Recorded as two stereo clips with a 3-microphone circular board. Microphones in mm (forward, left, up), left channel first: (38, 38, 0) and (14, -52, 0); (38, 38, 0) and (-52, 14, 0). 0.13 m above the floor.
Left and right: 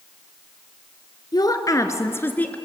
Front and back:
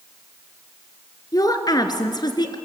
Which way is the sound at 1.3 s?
50° left.